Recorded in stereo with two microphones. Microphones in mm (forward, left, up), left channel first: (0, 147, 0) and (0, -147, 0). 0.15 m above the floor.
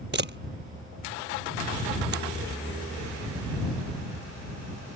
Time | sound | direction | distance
0.1 | a camera shutter | 40° right (ahead or behind) | ?